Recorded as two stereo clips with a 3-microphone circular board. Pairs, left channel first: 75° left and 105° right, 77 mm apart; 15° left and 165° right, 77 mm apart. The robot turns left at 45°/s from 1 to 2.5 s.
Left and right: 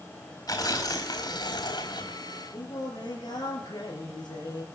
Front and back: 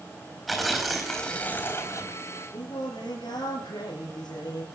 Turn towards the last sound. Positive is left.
turn(degrees=40)